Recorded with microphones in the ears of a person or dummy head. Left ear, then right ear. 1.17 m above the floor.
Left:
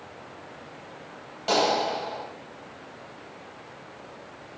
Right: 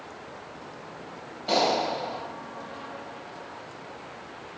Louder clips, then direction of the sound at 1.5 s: Left 1 dB; 65° left (ahead or behind).